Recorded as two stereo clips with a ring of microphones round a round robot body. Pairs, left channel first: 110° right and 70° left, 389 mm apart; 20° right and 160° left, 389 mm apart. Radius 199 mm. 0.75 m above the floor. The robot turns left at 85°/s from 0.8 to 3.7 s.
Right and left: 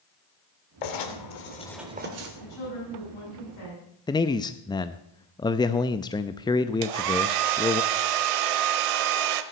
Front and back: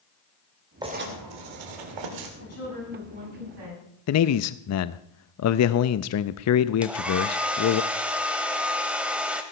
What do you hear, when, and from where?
0.8 s writing: 120° right, 2.5 m; by 2.3 s 115° left, 2.5 m
2.4 s a woman speaking: 70° right, 8 m; by 3.8 s straight behind, 8 m
4.1 s a man speaking: 40° right, 0.5 m
6.8 s a hair dryer: 70° left, 1.0 m